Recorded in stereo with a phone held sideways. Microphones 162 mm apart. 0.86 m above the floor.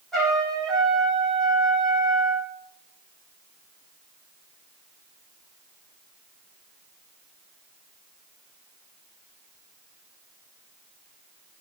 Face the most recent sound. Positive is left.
turn(degrees=0)  # may be behind; listen again after turning